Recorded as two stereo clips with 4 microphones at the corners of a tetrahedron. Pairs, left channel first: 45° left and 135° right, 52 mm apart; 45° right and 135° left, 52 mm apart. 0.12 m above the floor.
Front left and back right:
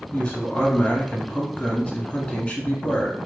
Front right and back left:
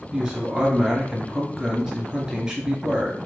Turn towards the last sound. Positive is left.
turn(degrees=80)